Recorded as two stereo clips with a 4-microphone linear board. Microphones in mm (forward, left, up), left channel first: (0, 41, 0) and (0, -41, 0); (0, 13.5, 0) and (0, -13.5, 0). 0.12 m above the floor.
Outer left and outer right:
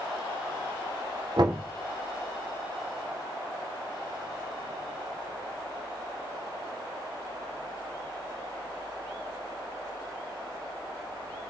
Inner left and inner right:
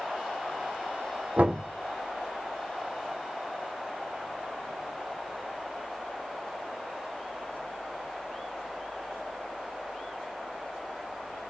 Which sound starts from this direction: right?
Knocking, at 1.4 s.